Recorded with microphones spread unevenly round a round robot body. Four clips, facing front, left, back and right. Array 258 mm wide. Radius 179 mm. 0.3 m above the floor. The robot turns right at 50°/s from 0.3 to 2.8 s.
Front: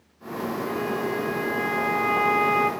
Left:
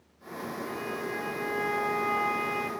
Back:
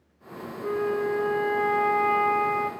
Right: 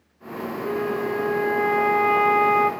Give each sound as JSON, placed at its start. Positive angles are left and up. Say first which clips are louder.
{"t": 0.6, "sound": "a flute", "louder": "right 12 dB, back 4 dB", "azimuth_deg": -155, "distance_m": 1.7}